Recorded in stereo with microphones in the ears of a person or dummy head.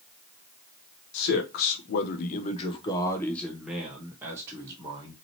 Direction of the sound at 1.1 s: 65° left (ahead or behind).